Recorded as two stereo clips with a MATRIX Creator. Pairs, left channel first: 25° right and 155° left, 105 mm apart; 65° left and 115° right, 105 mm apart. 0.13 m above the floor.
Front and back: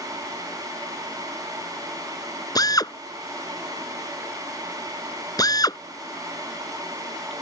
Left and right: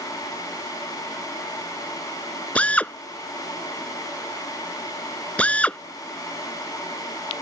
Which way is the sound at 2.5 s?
5° right.